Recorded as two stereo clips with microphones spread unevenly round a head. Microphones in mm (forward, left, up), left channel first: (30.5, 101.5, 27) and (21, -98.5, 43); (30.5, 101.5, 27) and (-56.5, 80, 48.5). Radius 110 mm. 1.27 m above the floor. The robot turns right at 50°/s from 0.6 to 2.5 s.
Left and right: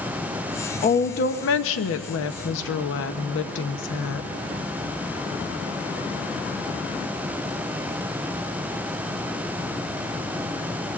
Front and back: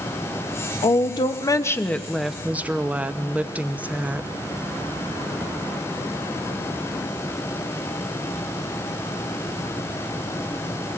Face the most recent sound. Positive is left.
turn(degrees=115)